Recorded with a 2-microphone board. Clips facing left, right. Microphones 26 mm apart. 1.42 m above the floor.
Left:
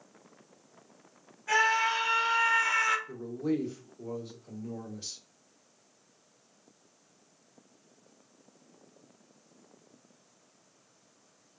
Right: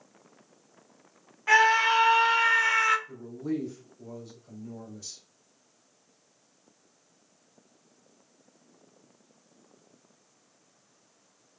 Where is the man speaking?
70° left (ahead or behind), 1.3 m.